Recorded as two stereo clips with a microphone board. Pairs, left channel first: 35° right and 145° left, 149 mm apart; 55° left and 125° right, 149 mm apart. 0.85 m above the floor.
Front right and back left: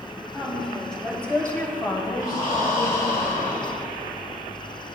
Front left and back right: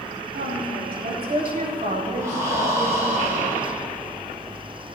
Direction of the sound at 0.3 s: 130° right.